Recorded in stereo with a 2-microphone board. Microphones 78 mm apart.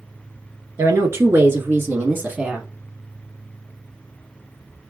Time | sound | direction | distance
0.8 | a woman speaking | 35° right (ahead or behind) | 1.7 m